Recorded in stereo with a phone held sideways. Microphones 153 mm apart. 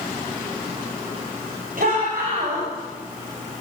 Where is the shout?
65° right (ahead or behind), 7 m.